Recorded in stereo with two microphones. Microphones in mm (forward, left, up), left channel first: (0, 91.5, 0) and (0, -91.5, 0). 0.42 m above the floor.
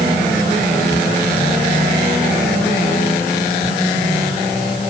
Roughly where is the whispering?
No whispering in this recording.